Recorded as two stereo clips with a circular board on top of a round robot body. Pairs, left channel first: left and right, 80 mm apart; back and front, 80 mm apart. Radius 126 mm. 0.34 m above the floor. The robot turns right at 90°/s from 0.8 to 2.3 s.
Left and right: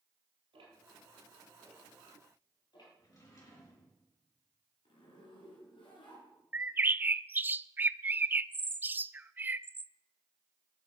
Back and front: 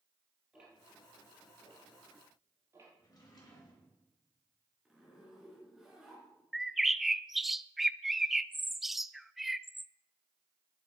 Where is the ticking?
80° right, 4 m; by 2.9 s 55° left, 4 m.